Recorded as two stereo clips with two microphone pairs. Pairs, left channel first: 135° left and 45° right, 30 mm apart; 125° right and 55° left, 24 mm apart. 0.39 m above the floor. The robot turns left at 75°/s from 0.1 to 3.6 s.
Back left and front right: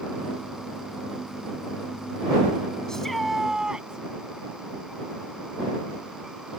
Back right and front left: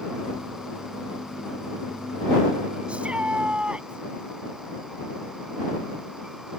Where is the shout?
70° left; by 4.0 s 20° left.